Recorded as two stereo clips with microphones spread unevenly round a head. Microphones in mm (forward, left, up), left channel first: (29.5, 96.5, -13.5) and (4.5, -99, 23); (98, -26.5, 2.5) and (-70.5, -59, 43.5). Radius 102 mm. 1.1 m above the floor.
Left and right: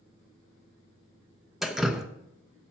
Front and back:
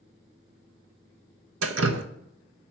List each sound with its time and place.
1.6 s dripping: 175° left, 0.6 m